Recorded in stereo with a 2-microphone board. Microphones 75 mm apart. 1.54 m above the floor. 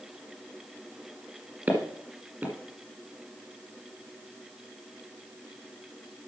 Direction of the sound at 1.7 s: 25° right (ahead or behind).